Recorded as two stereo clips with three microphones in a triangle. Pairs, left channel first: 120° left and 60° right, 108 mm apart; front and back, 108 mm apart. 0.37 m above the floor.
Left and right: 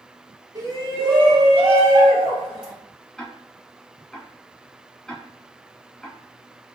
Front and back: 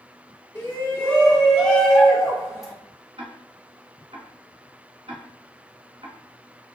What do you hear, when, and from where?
0.6 s a shout: 45° right, 1.5 m; by 2.7 s 90° right, 4 m
3.2 s ticking: 155° right, 1.3 m